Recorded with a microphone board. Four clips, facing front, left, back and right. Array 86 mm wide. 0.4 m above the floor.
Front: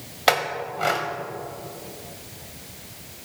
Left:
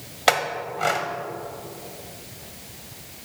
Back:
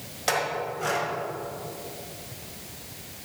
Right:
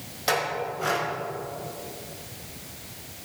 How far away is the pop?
No pop in this recording.